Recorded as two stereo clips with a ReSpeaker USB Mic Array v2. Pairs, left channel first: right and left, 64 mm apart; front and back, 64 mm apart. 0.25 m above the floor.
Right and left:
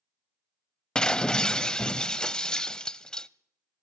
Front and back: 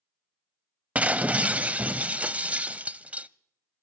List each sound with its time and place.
0.9 s breaking glass: 150° right, 0.5 m